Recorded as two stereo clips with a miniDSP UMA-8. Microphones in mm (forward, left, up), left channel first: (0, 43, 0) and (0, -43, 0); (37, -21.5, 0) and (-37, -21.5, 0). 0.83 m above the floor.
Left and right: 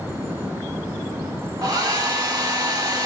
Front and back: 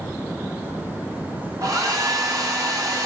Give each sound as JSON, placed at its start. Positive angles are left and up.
{"t": 1.6, "sound": "a hair dryer", "azimuth_deg": -135, "distance_m": 5.5}